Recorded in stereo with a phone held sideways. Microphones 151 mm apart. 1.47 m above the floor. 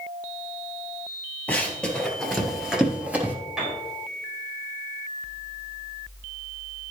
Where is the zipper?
No zipper in this recording.